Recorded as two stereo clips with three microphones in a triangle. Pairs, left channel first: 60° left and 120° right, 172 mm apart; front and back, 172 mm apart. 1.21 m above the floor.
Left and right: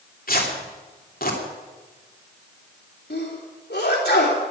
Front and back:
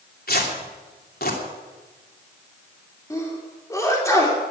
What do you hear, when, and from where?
0.3 s tearing paper: 25° left, 3 m
3.1 s a sneeze: 75° left, 3.5 m